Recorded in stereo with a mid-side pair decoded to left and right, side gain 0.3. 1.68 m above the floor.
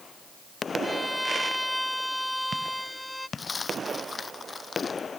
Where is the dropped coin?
45° left.